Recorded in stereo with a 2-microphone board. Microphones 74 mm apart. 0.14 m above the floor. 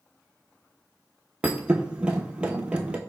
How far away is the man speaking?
No man speaking in this recording.